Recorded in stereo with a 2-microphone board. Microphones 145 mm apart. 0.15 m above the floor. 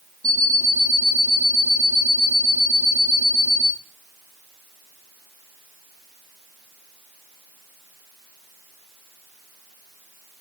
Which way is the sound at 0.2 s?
40° left (ahead or behind).